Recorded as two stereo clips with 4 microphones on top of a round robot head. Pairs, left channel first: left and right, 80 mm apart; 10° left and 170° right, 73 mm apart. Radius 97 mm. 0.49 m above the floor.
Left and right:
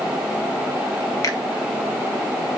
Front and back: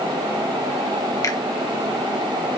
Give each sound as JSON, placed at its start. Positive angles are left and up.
{"t": 1.2, "sound": "a finger snap", "azimuth_deg": 45, "distance_m": 1.8}